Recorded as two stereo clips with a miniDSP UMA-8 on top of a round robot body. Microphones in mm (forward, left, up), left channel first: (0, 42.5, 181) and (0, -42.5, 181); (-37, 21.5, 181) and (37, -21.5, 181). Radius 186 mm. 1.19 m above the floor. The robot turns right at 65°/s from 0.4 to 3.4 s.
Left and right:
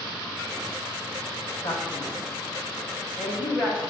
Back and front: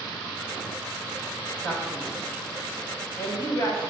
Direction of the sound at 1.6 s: 80° left.